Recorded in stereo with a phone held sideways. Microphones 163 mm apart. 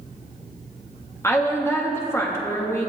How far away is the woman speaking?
About 1.7 m.